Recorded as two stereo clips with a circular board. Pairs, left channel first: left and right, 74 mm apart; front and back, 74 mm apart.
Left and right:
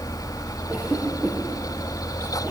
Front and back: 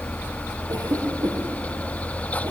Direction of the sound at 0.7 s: 165° right.